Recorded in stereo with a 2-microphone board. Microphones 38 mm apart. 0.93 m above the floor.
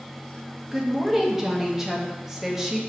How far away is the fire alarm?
No fire alarm in this recording.